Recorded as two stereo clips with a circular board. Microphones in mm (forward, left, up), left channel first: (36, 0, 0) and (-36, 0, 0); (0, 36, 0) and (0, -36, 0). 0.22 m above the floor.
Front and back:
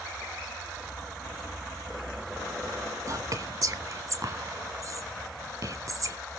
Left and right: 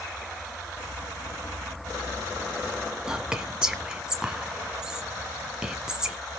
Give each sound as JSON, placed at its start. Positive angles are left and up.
{"t": 3.1, "sound": "whispering", "azimuth_deg": -170, "distance_m": 1.7}